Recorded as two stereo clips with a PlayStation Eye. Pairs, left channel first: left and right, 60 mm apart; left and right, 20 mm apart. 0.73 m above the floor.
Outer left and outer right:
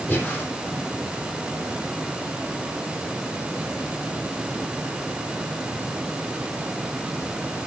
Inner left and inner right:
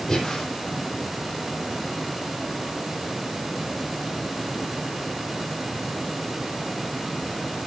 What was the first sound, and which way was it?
Breathing, 30° left (ahead or behind).